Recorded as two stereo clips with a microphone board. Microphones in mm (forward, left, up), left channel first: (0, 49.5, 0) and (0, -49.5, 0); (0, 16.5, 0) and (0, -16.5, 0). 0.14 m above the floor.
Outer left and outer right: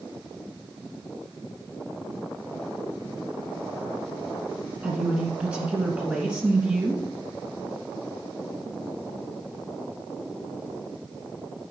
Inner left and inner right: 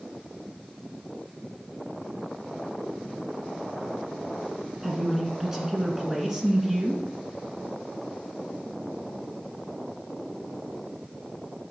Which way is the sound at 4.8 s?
15° right (ahead or behind).